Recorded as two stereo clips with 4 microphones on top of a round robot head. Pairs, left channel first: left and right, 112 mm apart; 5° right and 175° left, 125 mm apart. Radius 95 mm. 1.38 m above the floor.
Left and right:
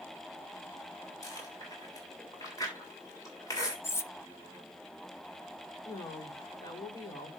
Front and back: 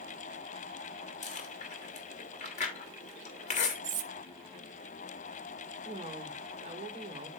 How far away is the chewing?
About 3 m.